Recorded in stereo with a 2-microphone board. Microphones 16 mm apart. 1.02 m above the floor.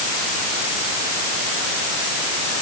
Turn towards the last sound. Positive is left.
No sound to turn to.